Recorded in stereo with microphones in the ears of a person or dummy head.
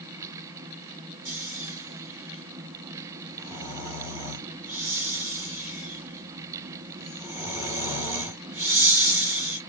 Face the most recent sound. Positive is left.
turn(degrees=-10)  # may be behind; listen again after turning